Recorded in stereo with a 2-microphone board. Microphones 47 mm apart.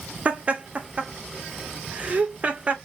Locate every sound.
0.2 s laughter: 30° right (ahead or behind), 0.7 m